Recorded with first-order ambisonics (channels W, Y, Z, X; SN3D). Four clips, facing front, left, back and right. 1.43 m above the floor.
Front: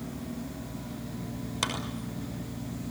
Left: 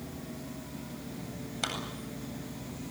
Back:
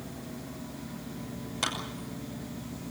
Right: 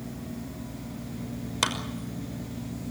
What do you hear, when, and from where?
1.6 s a clap: 80° right, 5.5 m